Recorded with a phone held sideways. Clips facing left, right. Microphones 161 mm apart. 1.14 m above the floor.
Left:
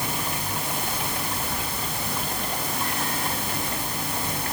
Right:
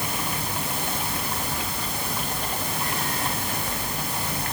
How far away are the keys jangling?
No keys jangling in this recording.